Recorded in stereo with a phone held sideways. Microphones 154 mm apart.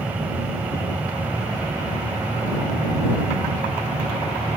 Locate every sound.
0.0 s a machine running: 10° right (ahead or behind)